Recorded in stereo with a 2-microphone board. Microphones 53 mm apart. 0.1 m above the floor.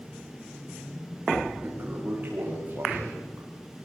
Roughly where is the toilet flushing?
Right.